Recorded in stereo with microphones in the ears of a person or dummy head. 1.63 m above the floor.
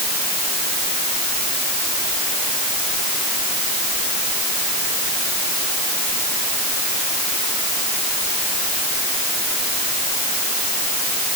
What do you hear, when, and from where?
Only background noise.